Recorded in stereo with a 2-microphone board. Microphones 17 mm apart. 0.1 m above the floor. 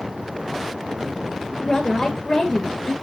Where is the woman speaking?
30° left (ahead or behind), 1.8 m.